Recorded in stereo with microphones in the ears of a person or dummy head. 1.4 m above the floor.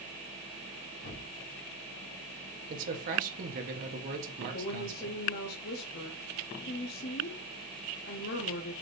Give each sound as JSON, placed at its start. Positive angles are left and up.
{"t": 1.0, "sound": "a thud", "side_deg": 40, "distance_m": 1.6}
{"t": 2.7, "sound": "a man speaking", "side_deg": -45, "distance_m": 1.1}
{"t": 4.5, "sound": "a woman speaking", "side_deg": 55, "distance_m": 0.6}